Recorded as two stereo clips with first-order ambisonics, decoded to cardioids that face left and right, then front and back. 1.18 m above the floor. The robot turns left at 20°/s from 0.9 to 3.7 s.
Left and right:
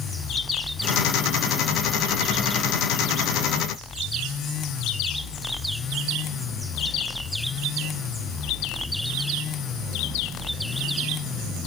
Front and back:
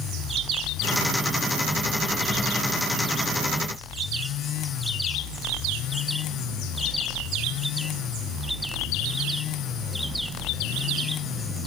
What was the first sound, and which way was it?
Only background noise.